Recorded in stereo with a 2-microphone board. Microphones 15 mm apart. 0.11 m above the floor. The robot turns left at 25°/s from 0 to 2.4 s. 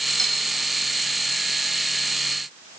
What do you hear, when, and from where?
0.2 s cutlery clinking: 35° left (ahead or behind), 2.5 m; by 0.3 s 30° left (ahead or behind), 2.5 m